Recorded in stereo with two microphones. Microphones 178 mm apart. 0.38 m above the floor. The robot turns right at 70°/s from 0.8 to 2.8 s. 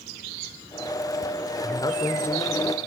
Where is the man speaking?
25° left (ahead or behind), 0.8 m; by 2.9 s centre (ahead or behind), 0.8 m.